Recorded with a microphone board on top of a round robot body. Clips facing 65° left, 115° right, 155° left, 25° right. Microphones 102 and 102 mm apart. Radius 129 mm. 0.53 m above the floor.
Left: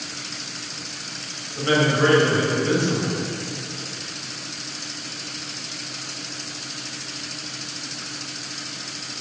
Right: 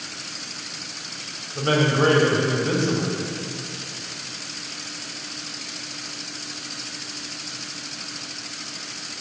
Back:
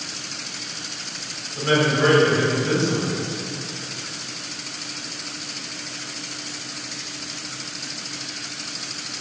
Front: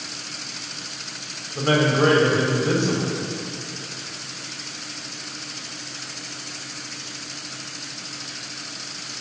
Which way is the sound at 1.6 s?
60° right.